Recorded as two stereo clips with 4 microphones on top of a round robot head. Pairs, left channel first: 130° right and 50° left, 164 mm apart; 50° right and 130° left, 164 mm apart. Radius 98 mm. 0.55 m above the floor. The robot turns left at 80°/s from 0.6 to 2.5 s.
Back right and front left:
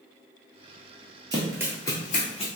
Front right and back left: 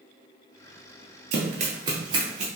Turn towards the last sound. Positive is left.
turn(degrees=170)